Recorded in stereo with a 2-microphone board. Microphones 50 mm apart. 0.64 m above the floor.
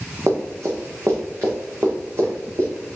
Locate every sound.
0.3 s running footsteps: 60° right (ahead or behind), 2.0 m; by 3.0 s 75° right (ahead or behind), 3.5 m